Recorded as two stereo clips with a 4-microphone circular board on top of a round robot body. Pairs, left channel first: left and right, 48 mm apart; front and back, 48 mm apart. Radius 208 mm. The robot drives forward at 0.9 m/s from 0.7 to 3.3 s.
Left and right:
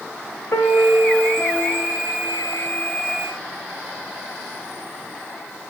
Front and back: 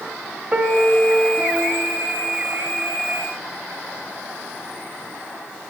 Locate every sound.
0.5 s a piano: 115° left, 1.6 m; by 2.9 s 150° left, 3 m